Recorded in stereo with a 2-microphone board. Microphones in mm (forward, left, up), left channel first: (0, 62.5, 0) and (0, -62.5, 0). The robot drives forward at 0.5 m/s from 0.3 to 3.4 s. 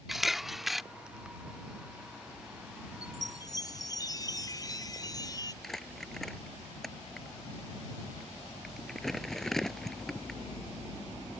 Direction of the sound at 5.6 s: Centre (ahead or behind).